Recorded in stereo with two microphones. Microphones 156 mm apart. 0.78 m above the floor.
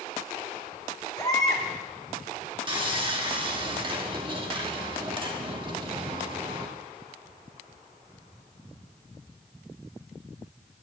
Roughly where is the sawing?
Right.